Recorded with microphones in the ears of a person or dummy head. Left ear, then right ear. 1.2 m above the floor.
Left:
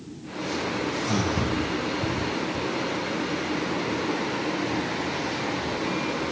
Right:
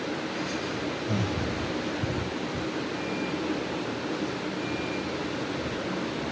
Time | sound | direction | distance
1.1 | breathing | 5° left (ahead or behind) | 4 m